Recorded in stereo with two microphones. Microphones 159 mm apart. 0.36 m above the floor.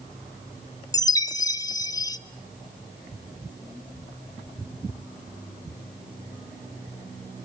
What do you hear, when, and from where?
0.9 s a chime: 20° left (ahead or behind), 0.8 m